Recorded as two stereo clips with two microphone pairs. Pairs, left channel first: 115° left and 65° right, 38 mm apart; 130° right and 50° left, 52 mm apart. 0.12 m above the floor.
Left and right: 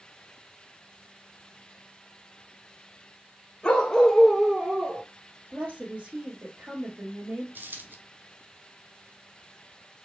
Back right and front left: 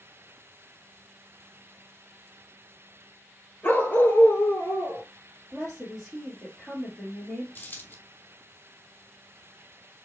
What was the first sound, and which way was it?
A dog barking, 175° left.